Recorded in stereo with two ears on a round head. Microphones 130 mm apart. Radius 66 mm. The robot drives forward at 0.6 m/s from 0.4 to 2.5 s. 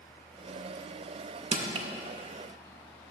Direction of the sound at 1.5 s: 45° right (ahead or behind).